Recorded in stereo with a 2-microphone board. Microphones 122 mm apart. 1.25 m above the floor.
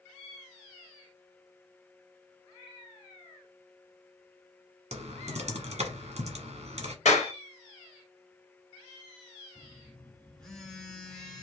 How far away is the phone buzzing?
About 1.2 m.